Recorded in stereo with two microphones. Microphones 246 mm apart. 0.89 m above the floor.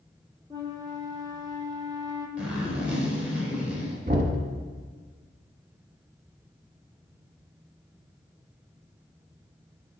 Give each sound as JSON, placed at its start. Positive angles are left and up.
{"t": 0.5, "sound": "a flute", "side_deg": -15, "distance_m": 1.2}
{"t": 2.4, "sound": "a zipper", "side_deg": -5, "distance_m": 2.5}
{"t": 4.1, "sound": "knocking", "side_deg": -35, "distance_m": 1.3}